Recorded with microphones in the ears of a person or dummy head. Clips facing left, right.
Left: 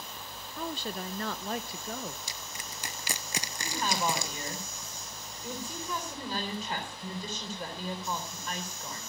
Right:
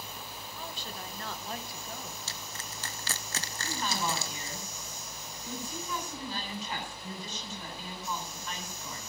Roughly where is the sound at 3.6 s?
Left.